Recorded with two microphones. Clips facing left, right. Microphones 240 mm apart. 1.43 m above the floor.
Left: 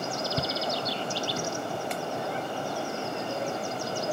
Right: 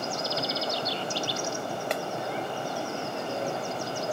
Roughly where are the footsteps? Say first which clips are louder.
Even; left.